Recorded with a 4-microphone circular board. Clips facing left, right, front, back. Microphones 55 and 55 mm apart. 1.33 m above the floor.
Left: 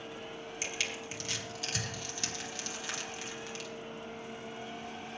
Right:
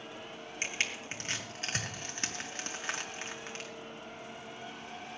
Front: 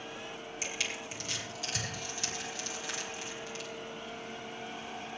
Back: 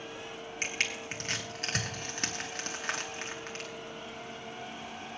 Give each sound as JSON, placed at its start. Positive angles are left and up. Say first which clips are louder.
{"t": 0.6, "sound": "crushing", "louder": "right 3 dB, back 4 dB", "azimuth_deg": -145, "distance_m": 2.0}